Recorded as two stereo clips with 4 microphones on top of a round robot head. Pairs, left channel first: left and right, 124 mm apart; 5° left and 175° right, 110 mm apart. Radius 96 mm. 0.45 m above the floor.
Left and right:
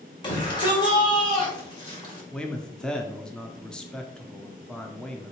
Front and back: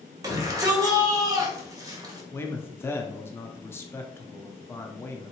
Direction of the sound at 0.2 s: 135° left.